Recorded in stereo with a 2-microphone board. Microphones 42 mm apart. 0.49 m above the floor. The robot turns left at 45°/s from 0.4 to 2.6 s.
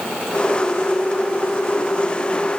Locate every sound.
Only background noise.